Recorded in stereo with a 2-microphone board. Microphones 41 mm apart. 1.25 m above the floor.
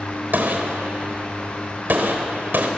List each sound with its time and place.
0.3 s a gunshot: 55° right (ahead or behind), 3.5 m